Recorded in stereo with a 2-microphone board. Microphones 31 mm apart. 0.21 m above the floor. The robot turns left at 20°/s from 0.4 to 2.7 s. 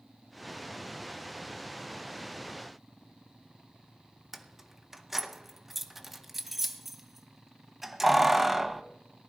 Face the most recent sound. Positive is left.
turn(degrees=-5)  # may be behind; listen again after turning